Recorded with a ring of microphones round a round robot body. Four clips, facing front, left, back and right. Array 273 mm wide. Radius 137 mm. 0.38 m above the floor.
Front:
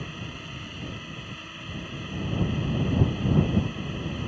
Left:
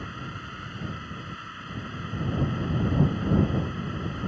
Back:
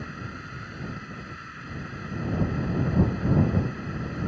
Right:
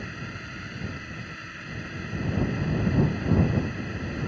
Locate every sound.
0.0 s a drone: 35° right